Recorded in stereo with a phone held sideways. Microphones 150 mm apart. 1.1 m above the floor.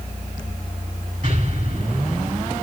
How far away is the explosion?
About 7.5 m.